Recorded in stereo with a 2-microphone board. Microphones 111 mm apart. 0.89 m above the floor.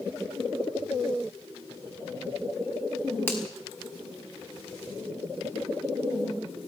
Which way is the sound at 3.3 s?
20° left (ahead or behind).